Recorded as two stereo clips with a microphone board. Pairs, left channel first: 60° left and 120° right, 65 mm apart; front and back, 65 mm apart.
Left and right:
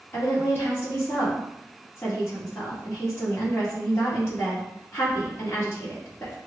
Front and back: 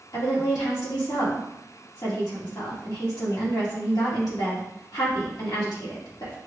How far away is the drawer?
I don't hear a drawer.